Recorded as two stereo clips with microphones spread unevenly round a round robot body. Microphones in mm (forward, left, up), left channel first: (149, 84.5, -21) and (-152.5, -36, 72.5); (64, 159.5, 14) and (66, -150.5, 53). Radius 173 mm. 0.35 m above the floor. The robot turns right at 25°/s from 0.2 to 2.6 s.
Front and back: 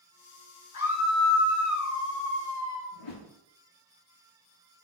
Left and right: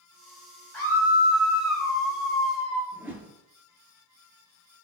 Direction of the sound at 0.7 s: 10° left.